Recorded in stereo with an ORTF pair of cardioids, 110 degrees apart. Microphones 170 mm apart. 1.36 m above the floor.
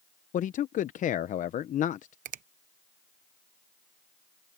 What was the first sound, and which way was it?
A man speaking, 50° left.